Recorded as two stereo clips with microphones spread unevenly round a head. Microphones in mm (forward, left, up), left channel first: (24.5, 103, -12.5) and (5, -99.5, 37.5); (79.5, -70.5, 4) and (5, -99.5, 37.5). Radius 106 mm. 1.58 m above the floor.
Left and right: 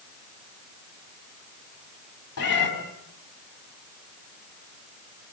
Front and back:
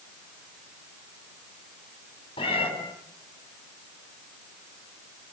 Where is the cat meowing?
70° left, 6 m.